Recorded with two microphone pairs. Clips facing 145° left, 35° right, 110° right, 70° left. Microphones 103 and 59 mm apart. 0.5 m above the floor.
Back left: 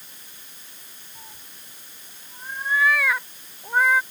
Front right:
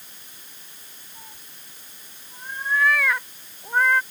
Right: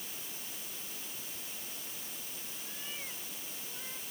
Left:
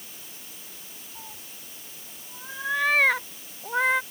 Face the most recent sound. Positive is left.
turn(degrees=60)